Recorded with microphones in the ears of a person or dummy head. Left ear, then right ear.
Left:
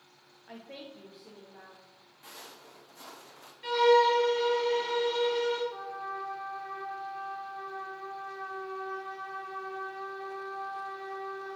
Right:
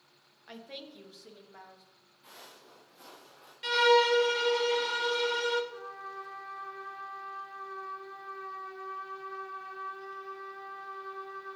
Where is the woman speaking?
30° right (ahead or behind), 1.2 m; by 1.8 s 35° right (ahead or behind), 3 m.